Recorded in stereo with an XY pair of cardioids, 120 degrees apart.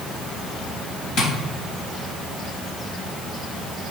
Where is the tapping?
60° left, 3.5 m.